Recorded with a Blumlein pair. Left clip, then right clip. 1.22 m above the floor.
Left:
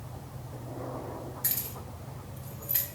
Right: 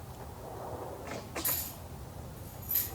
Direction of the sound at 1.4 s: 35° left.